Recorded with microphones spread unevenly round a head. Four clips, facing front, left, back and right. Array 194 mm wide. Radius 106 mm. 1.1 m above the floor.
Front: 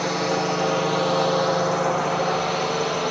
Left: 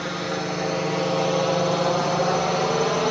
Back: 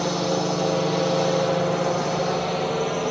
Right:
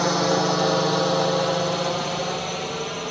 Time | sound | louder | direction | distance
0.0 | a drone | right 7 dB, even | 115° right | ?